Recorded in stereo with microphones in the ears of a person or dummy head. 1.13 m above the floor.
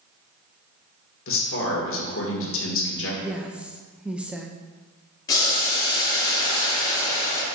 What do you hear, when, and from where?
1.3 s a man speaking: 65° left (ahead or behind), 1.4 m
3.2 s a woman speaking: 5° right (ahead or behind), 0.5 m
5.3 s boiling: 25° left (ahead or behind), 2 m